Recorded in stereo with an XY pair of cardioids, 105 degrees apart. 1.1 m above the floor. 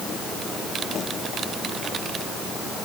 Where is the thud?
No thud in this recording.